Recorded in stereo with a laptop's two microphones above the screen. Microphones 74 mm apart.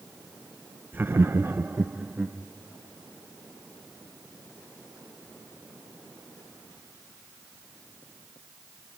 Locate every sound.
0.9 s laughter: 25° right (ahead or behind), 0.5 m; by 2.4 s 15° right (ahead or behind), 1.3 m